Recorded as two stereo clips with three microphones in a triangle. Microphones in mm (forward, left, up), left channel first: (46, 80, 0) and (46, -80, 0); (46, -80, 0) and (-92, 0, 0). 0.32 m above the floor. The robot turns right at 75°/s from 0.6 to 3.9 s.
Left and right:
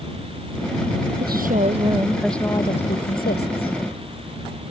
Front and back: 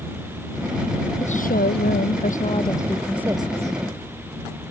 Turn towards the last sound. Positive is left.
turn(degrees=125)